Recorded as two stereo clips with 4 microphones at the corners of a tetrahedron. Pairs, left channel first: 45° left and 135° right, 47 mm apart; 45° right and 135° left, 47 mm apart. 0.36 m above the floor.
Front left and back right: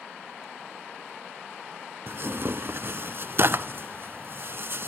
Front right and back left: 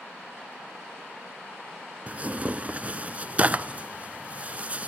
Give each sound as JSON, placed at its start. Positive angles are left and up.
{"t": 2.1, "sound": "tearing paper", "azimuth_deg": -165, "distance_m": 0.6}